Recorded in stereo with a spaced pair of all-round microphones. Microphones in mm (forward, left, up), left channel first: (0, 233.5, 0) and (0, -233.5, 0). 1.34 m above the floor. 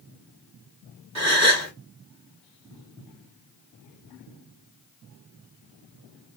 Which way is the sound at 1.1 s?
35° right (ahead or behind).